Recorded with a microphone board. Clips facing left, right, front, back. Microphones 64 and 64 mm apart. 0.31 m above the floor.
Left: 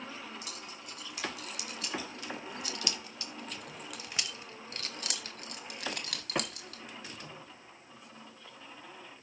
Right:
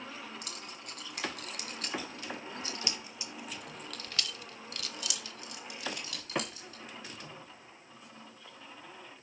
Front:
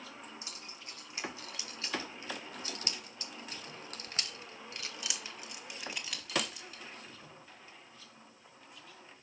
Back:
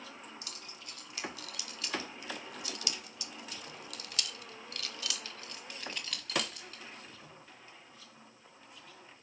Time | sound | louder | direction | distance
0.4 | keys jangling | even, even | 65° right | 2 m